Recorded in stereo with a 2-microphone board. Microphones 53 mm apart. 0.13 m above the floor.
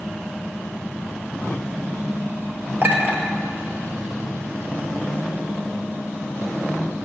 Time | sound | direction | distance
2.8 | a clink | 50° right (ahead or behind) | 2.5 m